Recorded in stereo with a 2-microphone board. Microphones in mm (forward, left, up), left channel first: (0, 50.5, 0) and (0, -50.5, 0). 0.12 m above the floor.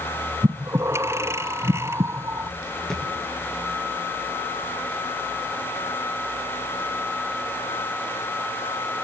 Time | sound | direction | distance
0.4 | breathing | 25° right (ahead or behind) | 1.0 m
2.9 | a thud | 5° left (ahead or behind) | 8.5 m